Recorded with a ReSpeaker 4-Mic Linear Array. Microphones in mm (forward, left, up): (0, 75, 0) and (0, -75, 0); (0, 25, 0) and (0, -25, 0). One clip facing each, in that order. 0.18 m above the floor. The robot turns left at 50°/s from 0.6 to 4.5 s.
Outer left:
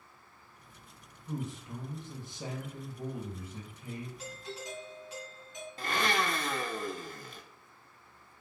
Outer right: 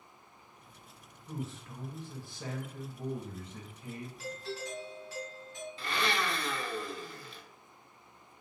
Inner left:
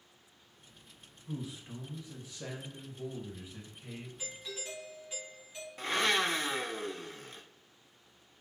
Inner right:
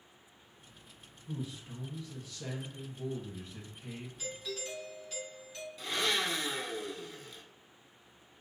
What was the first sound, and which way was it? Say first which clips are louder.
A man speaking: outer left 3 dB, even; 15° left (ahead or behind).